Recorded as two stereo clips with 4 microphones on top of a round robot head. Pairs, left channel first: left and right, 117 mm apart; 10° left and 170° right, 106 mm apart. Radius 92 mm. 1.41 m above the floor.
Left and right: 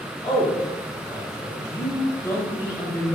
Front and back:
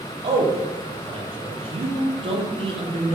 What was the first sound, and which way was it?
A man speaking, 155° left.